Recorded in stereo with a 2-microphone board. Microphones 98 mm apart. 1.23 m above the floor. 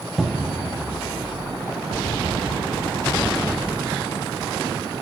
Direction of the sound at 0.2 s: Centre (ahead or behind).